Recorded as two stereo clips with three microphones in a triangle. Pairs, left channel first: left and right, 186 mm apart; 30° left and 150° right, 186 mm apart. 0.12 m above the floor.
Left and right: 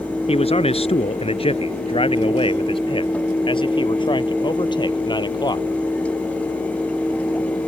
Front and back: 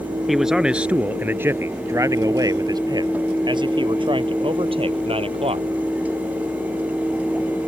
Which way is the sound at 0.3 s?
120° left.